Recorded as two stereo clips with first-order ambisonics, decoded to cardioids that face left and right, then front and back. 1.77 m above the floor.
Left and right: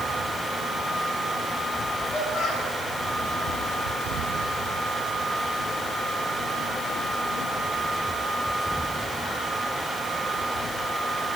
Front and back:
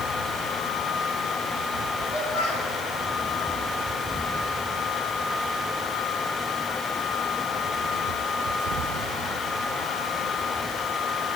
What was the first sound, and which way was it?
A child speaking, 35° right.